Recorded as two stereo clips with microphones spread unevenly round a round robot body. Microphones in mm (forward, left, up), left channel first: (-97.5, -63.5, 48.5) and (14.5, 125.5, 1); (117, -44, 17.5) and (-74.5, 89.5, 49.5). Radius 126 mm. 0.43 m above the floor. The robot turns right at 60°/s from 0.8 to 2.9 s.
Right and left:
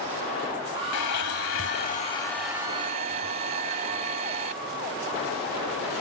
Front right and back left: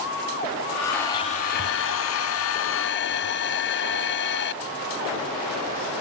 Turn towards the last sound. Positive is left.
turn(degrees=0)